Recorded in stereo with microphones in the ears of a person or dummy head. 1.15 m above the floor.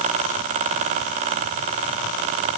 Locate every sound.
Only background noise.